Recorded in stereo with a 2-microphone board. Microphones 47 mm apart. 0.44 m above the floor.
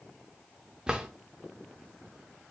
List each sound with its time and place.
0.9 s a drawer: 15° right (ahead or behind), 0.6 m